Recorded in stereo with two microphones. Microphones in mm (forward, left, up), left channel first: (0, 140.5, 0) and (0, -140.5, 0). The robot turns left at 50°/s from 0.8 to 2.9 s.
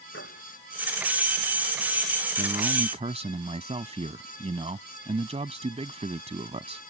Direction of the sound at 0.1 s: 50° left (ahead or behind).